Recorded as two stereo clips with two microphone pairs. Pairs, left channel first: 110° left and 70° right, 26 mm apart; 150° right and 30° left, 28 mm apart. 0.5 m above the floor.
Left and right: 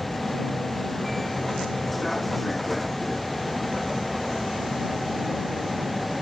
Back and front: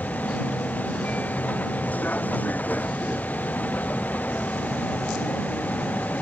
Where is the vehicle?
170° right; by 6.2 s 165° right.